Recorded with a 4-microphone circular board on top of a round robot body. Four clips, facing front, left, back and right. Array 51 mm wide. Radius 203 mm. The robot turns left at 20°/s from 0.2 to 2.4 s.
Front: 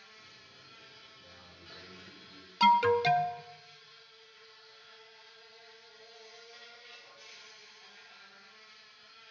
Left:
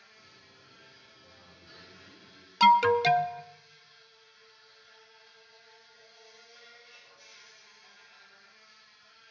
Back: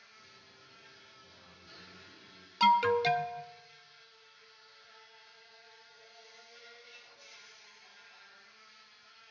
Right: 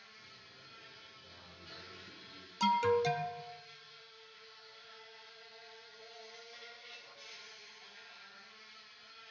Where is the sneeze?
No sneeze in this recording.